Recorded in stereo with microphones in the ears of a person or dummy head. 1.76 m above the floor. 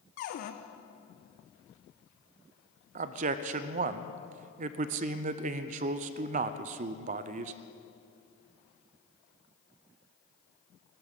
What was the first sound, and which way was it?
A cupboard door, 45° left (ahead or behind).